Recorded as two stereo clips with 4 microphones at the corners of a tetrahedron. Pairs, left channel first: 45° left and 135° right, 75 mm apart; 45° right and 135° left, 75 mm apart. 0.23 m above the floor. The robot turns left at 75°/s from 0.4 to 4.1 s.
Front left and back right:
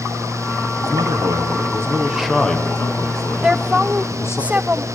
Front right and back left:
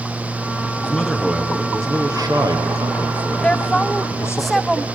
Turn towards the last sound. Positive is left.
turn(degrees=-130)